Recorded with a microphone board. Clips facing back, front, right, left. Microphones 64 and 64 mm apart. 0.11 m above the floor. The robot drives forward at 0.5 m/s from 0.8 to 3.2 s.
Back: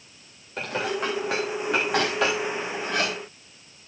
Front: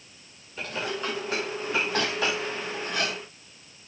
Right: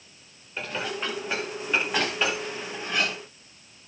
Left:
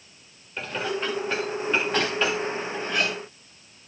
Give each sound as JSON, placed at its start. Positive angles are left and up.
{"t": 0.6, "sound": "dishes clattering", "azimuth_deg": -175, "distance_m": 6.5}